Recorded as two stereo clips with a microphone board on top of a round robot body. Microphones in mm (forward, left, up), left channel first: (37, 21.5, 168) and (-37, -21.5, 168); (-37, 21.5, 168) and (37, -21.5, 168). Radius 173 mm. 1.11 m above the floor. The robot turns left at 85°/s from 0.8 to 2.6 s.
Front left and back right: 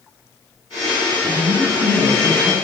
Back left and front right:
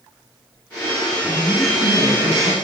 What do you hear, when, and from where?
1.2 s a woman speaking: 135° right, 3.5 m; by 2.5 s 115° left, 3.5 m